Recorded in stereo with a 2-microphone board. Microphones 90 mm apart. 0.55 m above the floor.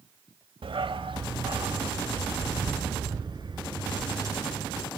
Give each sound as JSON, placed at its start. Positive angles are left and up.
{"t": 0.6, "sound": "a dog barking", "side_deg": -75, "distance_m": 1.0}